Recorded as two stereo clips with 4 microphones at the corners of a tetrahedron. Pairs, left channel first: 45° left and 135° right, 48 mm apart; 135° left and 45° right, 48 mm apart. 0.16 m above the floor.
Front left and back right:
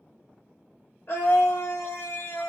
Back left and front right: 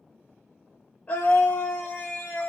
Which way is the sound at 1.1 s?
80° left.